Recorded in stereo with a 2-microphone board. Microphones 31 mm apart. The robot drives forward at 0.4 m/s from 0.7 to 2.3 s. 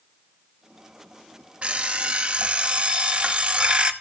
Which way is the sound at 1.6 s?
40° right (ahead or behind).